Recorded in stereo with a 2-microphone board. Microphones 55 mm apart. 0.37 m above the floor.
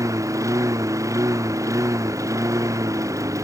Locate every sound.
0.0 s a lawn mower: 90° right